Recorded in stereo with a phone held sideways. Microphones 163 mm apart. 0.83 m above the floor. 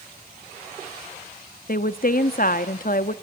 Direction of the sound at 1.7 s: 60° left (ahead or behind).